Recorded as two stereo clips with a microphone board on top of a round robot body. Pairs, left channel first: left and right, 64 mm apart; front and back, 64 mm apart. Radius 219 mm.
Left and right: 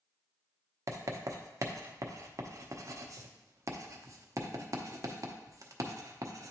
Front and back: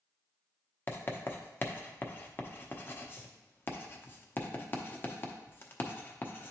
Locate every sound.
0.9 s writing: 55° right, 0.9 m